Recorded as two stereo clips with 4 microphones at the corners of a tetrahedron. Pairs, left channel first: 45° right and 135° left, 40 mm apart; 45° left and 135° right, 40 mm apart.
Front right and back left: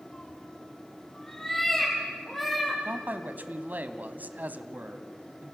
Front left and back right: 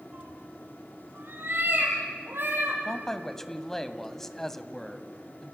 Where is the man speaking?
120° left, 1.5 m.